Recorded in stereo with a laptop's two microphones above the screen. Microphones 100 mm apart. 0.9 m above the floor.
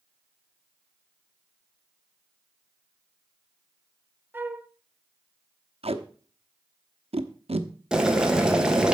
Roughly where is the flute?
Right.